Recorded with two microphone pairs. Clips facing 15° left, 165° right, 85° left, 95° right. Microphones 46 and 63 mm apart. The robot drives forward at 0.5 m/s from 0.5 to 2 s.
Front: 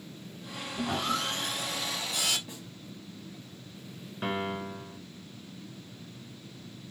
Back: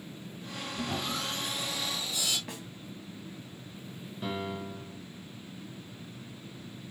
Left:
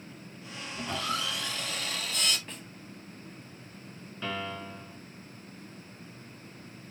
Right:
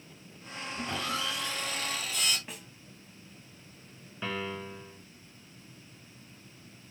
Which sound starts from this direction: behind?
A snare drum, at 2.5 s.